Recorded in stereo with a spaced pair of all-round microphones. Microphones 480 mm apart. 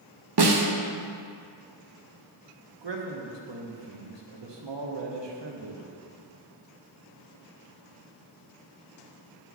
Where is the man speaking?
60° right (ahead or behind), 1.0 m.